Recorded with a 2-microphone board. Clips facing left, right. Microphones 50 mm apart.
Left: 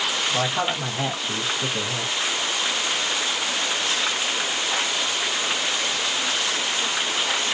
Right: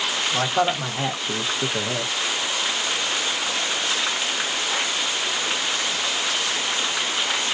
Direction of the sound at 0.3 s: 15° right (ahead or behind).